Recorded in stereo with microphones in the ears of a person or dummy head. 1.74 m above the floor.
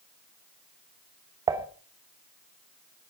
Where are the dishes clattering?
15° right (ahead or behind), 1.3 m.